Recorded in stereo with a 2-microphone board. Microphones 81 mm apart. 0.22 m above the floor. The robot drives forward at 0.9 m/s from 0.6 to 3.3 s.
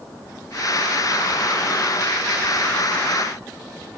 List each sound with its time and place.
Only background noise.